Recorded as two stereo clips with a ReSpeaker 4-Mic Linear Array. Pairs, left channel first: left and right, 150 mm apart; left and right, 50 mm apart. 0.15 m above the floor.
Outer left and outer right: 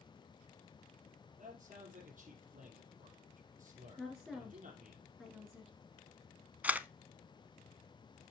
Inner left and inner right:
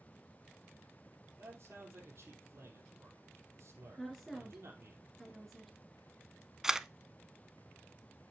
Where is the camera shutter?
10° right (ahead or behind), 0.6 m.